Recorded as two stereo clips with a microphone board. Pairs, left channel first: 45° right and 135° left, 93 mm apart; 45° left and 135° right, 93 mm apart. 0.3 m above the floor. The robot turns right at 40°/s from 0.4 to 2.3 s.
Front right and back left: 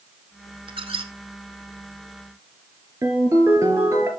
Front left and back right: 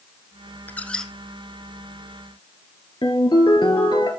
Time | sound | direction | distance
0.7 | a squeak | 115° left | 1.0 m
3.0 | a ringtone | 80° left | 2.5 m